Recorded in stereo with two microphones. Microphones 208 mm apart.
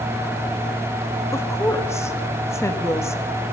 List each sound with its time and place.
1.3 s a woman speaking: 15° left (ahead or behind), 1.2 m